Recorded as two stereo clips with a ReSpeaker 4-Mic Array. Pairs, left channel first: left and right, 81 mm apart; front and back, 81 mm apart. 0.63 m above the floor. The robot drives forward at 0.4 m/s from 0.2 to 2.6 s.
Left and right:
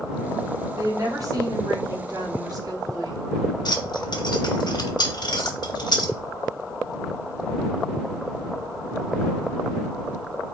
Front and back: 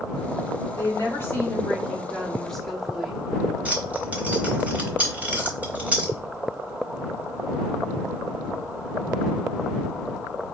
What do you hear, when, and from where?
0.8 s a woman speaking: 50° right, 1.3 m; by 3.2 s 85° right, 1.1 m
3.6 s keys jangling: 110° left, 0.8 m